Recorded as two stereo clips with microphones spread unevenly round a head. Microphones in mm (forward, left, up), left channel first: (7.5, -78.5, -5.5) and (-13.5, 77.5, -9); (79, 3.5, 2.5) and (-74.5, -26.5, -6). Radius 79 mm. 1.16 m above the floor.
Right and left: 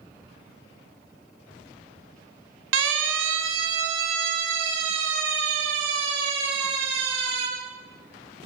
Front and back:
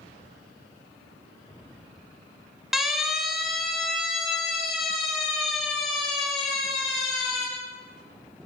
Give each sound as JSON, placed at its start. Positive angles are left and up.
{"t": 2.7, "sound": "a siren", "azimuth_deg": 105, "distance_m": 3.0}